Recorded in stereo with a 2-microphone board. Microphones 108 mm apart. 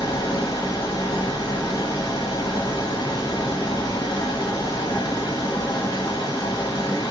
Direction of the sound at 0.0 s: 45° left (ahead or behind).